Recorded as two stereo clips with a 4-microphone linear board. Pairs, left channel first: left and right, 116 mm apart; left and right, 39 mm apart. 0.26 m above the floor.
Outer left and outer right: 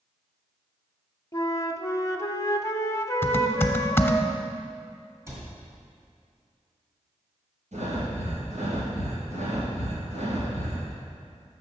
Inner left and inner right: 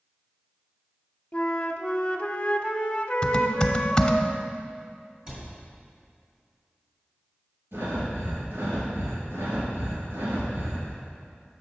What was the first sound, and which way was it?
A flute, 30° left (ahead or behind).